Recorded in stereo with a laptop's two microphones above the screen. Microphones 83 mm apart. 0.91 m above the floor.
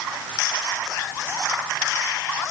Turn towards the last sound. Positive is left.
No sound to turn to.